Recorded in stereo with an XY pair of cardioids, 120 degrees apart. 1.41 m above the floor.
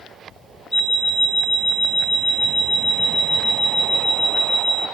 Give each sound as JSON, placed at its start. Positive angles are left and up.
{"t": 0.7, "sound": "an alarm clock", "azimuth_deg": 15, "distance_m": 2.5}